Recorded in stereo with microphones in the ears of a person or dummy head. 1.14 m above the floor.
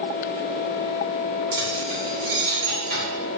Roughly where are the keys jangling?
Right.